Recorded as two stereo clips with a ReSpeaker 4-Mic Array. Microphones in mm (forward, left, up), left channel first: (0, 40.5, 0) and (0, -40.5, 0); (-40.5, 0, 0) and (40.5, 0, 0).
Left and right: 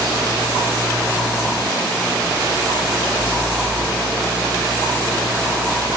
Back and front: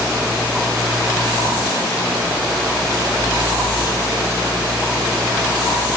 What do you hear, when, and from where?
Only background noise.